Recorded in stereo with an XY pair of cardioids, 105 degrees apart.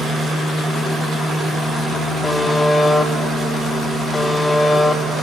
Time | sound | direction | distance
2.2 | a buzzer | 15° left | 1.9 m